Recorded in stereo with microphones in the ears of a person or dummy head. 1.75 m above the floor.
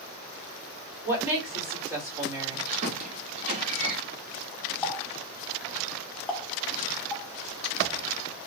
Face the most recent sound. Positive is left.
turn(degrees=10)  # may be behind; listen again after turning